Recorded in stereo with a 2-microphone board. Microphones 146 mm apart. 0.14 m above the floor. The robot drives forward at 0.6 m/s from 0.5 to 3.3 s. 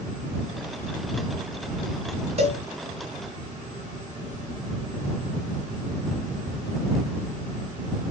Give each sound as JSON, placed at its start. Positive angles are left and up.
{"t": 2.4, "sound": "a cowbell", "side_deg": -45, "distance_m": 1.9}